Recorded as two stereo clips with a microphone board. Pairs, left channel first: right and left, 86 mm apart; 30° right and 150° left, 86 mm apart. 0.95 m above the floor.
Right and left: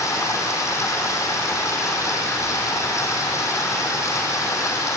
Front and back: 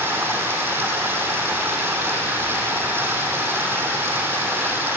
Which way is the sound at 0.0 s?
145° right.